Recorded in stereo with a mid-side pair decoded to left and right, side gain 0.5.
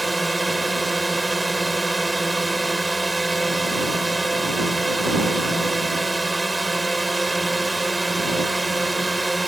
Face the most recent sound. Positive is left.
turn(degrees=-10)